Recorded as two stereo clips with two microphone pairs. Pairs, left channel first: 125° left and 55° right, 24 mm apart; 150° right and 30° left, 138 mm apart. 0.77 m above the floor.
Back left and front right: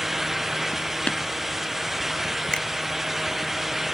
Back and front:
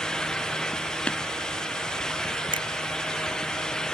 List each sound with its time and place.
1.1 s tapping: 130° left
2.5 s a finger snap: 80° left